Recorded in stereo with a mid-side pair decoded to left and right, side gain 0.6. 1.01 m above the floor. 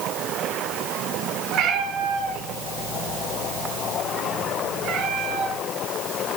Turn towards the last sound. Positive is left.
turn(degrees=-60)